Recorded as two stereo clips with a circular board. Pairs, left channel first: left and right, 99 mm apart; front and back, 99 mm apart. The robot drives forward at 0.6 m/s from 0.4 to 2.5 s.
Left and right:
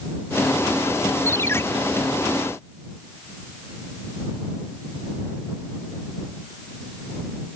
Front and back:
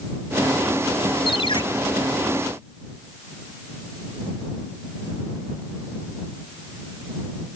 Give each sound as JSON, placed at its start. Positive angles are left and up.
{"t": 1.3, "sound": "a ringtone", "azimuth_deg": 25}